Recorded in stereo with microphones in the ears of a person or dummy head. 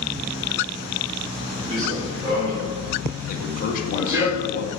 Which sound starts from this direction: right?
Running footsteps, at 1.7 s.